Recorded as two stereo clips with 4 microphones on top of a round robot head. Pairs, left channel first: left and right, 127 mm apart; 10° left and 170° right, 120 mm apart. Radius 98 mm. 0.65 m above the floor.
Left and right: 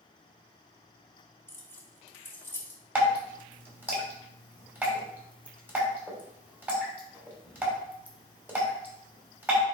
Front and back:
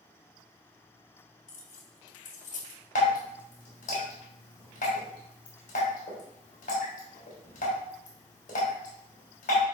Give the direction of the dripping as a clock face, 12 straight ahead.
12 o'clock.